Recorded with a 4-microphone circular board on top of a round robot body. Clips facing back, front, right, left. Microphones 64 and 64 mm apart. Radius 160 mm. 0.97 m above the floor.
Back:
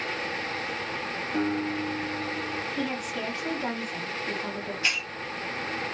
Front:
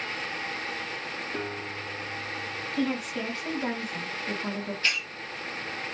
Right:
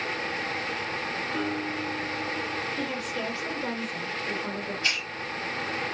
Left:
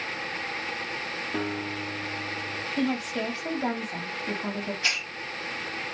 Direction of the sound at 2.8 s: 90° left.